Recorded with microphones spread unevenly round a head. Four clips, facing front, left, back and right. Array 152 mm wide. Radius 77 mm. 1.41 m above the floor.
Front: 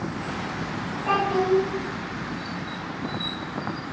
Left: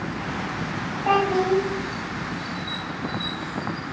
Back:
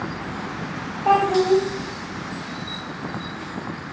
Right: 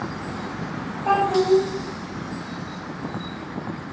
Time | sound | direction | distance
1.1 | a child speaking | 150° left | 1.2 m